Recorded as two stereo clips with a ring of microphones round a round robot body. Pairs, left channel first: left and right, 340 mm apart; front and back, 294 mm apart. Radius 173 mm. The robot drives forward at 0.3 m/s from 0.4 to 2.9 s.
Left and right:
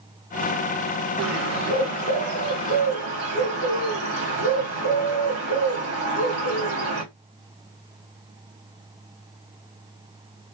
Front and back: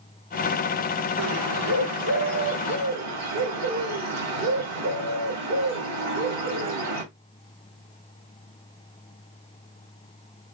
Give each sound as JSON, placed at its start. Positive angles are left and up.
{"t": 1.2, "sound": "a bird", "azimuth_deg": -130, "distance_m": 2.5}